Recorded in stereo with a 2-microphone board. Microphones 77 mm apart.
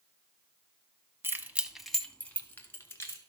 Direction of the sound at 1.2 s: 30° right (ahead or behind).